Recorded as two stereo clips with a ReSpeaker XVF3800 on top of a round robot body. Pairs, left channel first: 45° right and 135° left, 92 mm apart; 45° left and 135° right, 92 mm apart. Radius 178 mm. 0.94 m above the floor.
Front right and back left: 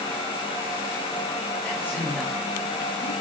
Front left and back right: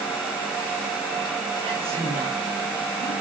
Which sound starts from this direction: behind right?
A man speaking, at 1.6 s.